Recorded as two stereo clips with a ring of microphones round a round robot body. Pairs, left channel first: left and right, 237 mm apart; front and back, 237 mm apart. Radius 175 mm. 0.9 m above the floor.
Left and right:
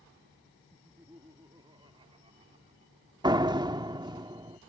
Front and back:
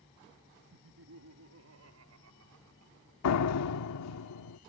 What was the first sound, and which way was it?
Laughter, 175° right.